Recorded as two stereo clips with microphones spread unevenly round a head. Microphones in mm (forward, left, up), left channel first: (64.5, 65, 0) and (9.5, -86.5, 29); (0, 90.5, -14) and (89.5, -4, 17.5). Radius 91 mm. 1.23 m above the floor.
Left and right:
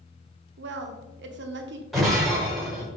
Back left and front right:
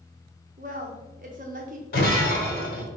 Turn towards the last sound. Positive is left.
turn(degrees=165)